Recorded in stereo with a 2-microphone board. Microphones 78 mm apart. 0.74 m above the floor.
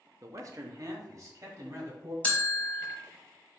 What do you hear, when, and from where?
0.2 s a man speaking: 40° right (ahead or behind), 0.6 m; by 2.1 s 45° right (ahead or behind), 1.9 m
2.2 s a bell: 15° left (ahead or behind), 1.1 m